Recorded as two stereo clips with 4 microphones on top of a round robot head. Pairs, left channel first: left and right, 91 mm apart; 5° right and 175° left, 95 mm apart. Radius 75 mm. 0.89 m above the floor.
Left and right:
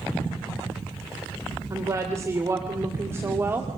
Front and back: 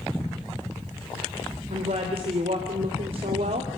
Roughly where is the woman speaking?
Behind right.